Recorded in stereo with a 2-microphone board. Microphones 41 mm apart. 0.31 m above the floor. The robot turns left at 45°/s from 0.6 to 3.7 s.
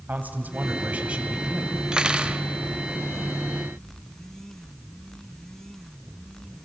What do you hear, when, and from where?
0.1 s a man speaking: 120° right, 2 m; by 1.8 s 170° right, 2 m
1.9 s cutlery clinking: 20° right (ahead or behind), 0.8 m; by 2.4 s 30° right (ahead or behind), 0.8 m